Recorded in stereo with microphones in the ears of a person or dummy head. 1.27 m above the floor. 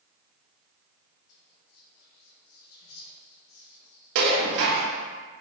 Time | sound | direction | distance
1.3 | whispering | 85° left | 2.5 m
4.2 | dishes clattering | 70° right (ahead or behind) | 1.1 m